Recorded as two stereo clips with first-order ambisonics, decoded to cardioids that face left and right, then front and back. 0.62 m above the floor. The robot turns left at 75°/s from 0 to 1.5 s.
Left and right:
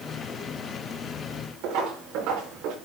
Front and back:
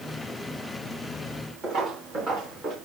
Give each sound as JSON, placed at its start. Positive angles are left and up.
{"t": 1.6, "sound": "footsteps", "azimuth_deg": -115, "distance_m": 6.0}